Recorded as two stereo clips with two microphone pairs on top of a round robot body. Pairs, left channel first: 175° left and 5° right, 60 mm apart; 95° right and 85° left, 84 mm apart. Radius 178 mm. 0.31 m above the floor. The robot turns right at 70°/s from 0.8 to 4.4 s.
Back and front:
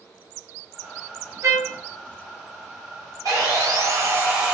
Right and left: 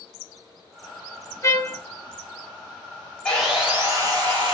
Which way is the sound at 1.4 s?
40° right.